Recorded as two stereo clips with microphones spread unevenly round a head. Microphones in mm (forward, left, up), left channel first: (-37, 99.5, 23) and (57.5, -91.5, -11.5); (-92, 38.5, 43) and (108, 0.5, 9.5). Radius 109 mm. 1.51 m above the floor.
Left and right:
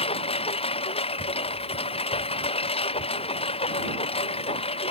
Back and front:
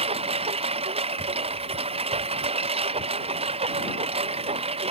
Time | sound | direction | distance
0.0 | a lawn mower | 50° left | ?